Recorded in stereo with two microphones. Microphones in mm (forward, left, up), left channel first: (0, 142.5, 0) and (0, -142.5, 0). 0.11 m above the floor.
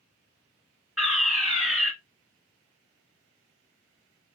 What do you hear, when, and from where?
1.0 s a fire alarm: centre (ahead or behind), 2 m